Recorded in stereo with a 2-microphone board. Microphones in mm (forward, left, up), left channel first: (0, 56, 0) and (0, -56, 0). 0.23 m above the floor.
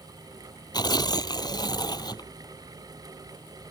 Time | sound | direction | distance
0.7 | tearing paper | 40° left (ahead or behind) | ?